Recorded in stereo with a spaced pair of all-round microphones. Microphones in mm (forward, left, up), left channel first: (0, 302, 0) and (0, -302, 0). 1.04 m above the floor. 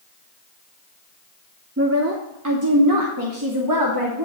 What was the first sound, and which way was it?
A woman speaking, 20° right (ahead or behind).